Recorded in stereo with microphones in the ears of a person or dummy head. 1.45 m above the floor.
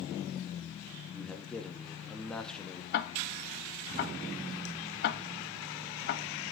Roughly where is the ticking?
Left.